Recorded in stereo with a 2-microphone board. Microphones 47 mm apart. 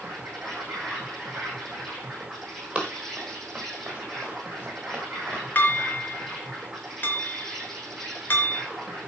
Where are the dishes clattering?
45° left (ahead or behind), 3 m.